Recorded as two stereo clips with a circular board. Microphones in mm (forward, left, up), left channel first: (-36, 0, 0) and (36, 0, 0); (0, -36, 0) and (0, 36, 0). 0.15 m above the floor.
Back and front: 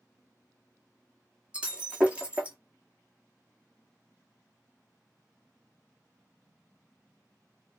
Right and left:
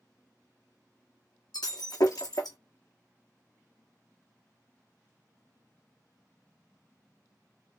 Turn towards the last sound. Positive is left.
turn(degrees=-75)